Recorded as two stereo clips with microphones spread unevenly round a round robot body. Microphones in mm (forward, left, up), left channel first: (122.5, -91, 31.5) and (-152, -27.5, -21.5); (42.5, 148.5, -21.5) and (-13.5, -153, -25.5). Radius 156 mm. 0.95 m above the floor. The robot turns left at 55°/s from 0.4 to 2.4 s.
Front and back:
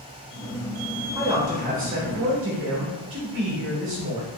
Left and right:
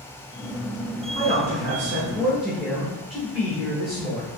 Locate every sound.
1.1 s a man speaking: 125° right, 0.9 m; by 4.3 s 165° left, 0.9 m